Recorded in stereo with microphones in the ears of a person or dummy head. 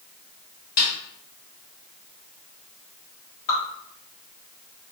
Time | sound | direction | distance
0.8 | a snare drum | 45° left (ahead or behind) | 1.2 m
3.5 | dripping | 50° left (ahead or behind) | 1.7 m